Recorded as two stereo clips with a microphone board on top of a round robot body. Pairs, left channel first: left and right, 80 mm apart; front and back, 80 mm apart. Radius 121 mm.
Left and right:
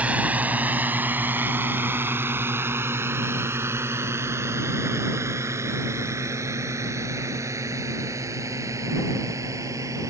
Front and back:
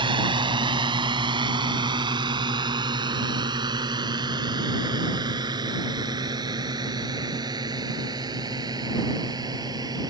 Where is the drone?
165° right; by 10.1 s 140° right.